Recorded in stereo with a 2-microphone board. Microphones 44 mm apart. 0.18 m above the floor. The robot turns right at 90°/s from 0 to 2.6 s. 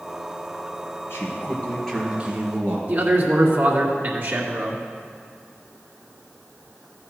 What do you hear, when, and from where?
1.1 s a man speaking: 100° left, 3 m; by 2.8 s 125° right, 3 m
2.9 s a man speaking: 50° right (ahead or behind), 1.9 m